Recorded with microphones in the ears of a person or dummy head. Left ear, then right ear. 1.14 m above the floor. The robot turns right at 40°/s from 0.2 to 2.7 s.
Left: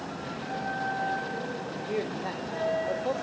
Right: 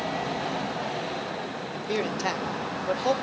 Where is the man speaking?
80° right, 1.3 m; by 3.1 s 60° right (ahead or behind), 1.3 m.